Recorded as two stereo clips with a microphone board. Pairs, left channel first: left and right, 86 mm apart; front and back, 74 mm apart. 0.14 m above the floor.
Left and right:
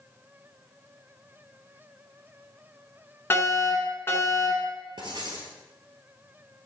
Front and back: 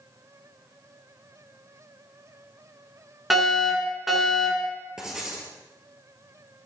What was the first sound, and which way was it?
A fire alarm, 95° left.